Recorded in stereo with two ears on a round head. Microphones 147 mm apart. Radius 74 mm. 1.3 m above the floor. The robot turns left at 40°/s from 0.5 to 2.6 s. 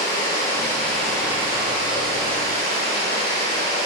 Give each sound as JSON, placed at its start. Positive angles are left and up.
{"t": 0.0, "sound": "running water", "azimuth_deg": 25, "distance_m": 2.5}